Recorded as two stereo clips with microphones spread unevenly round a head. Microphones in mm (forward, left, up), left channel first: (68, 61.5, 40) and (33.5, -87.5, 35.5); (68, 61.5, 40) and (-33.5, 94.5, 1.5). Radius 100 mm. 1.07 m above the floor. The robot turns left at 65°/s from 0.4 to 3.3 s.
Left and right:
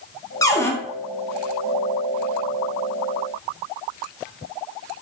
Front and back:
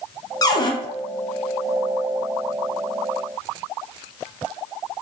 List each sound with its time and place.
0.4 s a cupboard door: 40° left, 0.5 m; by 0.7 s 20° left, 0.5 m